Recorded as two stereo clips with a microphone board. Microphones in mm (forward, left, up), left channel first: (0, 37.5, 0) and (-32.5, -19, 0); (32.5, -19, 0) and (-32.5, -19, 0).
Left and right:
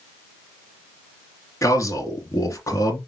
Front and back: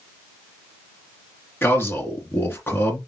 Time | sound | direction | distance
1.6 | a man speaking | 45° left | 2.5 m